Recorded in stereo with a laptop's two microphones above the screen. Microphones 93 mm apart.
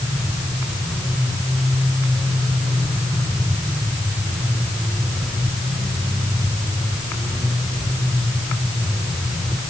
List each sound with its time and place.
Only background noise.